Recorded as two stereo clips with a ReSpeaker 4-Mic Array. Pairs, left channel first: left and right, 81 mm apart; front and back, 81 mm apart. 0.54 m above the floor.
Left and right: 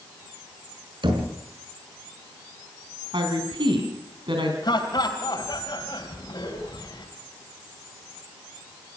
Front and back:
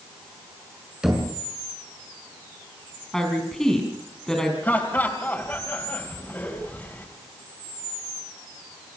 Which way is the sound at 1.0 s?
100° right.